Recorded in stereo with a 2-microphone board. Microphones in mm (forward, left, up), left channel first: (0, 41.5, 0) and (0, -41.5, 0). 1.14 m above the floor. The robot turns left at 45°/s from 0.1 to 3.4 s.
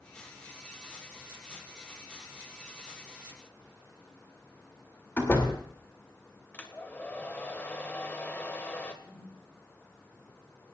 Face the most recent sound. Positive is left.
turn(degrees=25)  # may be behind; listen again after turning